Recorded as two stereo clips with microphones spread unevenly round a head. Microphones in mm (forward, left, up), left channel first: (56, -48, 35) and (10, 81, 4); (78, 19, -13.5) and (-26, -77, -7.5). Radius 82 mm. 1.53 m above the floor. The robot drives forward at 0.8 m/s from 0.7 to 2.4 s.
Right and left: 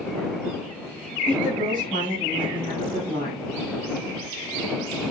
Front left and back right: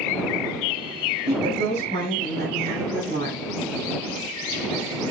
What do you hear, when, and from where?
1.3 s a woman speaking: 175° left, 8.5 m